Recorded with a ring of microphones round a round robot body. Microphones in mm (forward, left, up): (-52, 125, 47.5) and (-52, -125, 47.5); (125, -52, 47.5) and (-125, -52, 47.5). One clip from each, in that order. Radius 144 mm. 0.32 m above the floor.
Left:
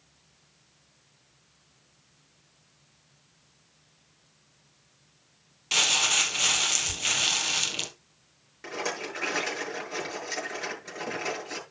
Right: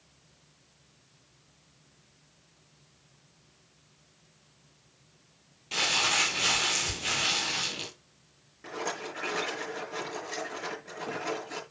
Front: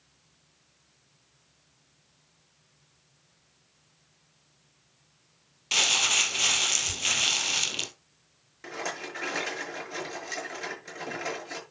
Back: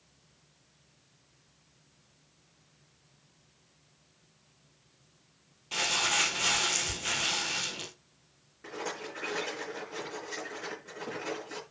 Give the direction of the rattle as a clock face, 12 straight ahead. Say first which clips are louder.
Left 2 dB, front 3 dB; 11 o'clock.